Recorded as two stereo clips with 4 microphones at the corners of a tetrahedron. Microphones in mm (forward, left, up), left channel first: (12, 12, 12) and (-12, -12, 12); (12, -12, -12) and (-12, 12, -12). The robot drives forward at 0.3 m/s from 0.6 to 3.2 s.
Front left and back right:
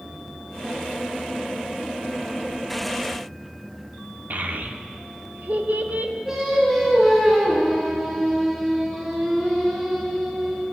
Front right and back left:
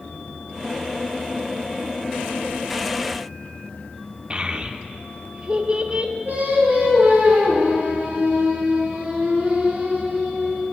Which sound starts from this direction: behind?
A child speaking, at 4.3 s.